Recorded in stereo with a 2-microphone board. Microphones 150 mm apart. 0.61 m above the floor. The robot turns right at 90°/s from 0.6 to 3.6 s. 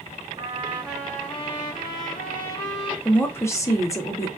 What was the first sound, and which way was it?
A trumpet, 35° right.